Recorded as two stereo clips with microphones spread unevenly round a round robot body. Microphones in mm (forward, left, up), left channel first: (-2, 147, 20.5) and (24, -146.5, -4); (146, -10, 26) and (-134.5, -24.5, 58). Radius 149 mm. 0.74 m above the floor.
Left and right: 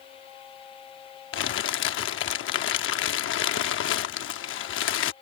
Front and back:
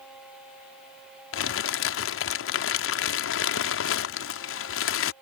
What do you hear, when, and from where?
1.3 s crumpling: 45° left